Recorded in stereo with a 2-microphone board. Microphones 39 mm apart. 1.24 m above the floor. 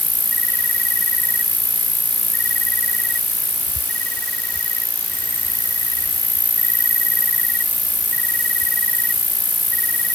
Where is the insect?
45° left (ahead or behind).